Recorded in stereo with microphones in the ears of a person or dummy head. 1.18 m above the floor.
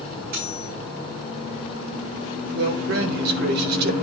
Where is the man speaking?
60° right (ahead or behind), 1.3 m.